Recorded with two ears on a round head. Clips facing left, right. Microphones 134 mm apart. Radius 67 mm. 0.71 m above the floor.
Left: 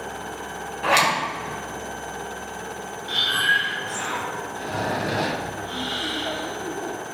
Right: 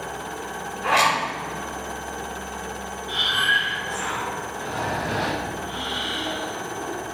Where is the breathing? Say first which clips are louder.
Even; 50° left (ahead or behind), 1.7 m.